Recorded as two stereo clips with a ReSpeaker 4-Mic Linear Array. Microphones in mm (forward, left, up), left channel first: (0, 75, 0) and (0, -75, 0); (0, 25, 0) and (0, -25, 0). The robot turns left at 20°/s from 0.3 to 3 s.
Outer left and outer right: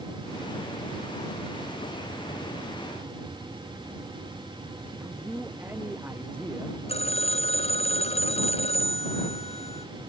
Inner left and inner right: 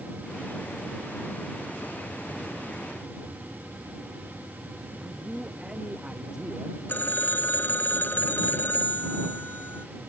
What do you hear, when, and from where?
5.0 s a man speaking: 10° right (ahead or behind)
6.9 s a phone ringing: 45° left (ahead or behind)